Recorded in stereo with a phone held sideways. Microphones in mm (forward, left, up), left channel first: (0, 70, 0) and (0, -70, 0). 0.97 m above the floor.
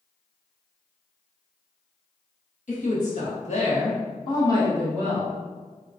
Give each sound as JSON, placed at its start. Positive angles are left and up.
{"t": 2.7, "sound": "a woman speaking", "side_deg": 65, "distance_m": 1.4}